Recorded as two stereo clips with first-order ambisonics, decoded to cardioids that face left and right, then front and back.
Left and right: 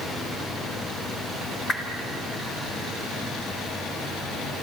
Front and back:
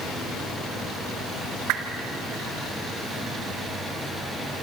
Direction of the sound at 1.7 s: 160° left.